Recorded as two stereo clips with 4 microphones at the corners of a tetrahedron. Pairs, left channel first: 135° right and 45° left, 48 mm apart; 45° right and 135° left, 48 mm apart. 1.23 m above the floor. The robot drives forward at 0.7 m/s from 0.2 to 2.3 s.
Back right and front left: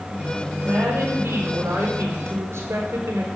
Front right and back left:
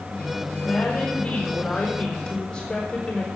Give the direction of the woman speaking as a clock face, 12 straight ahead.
11 o'clock.